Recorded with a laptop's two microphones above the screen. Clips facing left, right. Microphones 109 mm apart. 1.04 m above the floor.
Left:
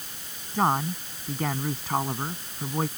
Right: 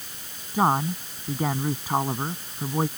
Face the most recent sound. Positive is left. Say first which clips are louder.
# right 2 dB
turn(degrees=-10)  # may be behind; listen again after turning